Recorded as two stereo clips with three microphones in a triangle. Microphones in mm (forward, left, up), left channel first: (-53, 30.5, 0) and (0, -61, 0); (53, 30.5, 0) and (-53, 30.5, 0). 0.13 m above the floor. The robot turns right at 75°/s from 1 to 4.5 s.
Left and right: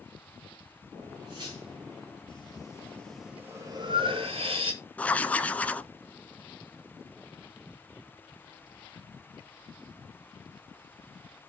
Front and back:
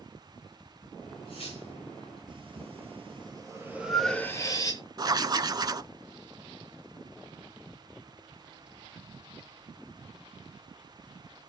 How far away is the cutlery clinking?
About 9.5 m.